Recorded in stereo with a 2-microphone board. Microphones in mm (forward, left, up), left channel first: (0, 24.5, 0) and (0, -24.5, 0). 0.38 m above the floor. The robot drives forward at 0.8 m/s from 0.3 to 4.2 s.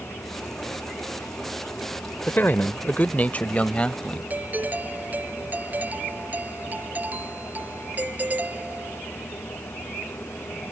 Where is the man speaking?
40° left (ahead or behind); by 4.2 s 25° left (ahead or behind).